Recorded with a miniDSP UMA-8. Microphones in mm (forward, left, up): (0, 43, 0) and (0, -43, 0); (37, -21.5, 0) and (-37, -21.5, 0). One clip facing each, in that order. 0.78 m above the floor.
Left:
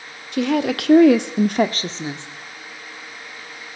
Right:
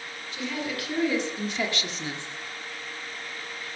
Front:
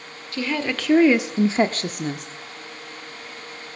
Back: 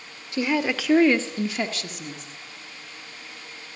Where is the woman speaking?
110° left, 2.0 m; by 2.3 s 20° left, 1.6 m.